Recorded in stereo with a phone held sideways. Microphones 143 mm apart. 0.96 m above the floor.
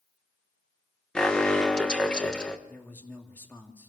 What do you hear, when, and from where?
1.1 s an alarm: 5° left (ahead or behind), 1.4 m
2.7 s a man speaking: 15° left (ahead or behind), 2 m